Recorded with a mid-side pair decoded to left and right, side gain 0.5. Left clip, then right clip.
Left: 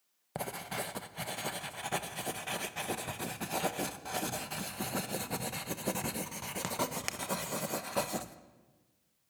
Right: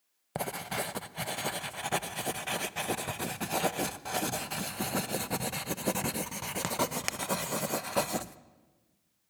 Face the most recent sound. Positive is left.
turn(degrees=-25)